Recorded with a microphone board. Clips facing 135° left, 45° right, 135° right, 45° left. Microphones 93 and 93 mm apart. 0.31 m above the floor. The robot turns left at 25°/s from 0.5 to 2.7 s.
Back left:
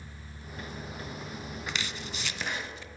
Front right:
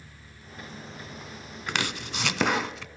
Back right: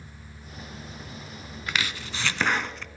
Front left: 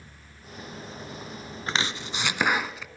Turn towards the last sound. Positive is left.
turn(degrees=-40)